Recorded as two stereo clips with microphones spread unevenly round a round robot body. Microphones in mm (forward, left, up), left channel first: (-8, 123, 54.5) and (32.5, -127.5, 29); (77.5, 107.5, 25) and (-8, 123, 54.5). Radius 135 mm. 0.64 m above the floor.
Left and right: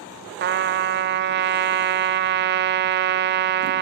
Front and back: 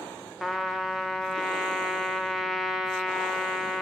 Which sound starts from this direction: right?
A trumpet, at 0.4 s.